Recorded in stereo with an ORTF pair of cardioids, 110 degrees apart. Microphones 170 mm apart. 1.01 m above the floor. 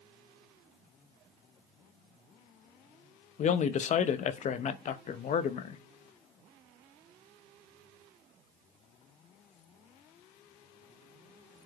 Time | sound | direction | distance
3.4 | a man speaking | 45° left | 0.8 m